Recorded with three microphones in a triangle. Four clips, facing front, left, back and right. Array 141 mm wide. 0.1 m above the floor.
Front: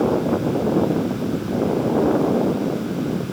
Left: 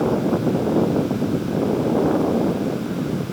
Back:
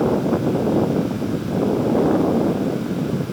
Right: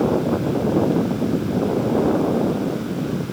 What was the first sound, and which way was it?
Only background noise.